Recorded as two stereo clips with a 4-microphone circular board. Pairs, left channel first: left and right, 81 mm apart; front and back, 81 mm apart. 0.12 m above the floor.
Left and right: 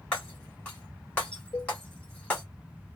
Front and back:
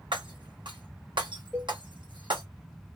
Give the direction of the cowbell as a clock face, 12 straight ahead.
9 o'clock.